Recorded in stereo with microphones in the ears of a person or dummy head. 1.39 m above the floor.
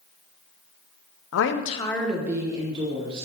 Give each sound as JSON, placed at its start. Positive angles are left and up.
{"t": 1.3, "sound": "a woman speaking", "side_deg": 85, "distance_m": 0.7}